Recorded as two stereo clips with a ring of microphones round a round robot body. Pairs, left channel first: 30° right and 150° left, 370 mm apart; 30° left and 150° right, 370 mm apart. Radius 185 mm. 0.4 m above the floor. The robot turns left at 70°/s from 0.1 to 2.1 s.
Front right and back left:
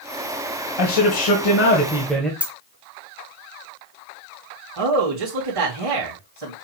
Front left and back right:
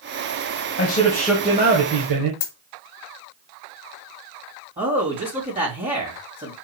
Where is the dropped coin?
65° left, 1.3 m.